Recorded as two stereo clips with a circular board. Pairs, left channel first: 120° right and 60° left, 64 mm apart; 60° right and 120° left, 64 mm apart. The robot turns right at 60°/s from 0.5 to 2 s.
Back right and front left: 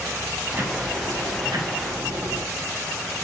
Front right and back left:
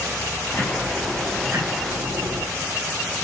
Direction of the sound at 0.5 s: Straight ahead.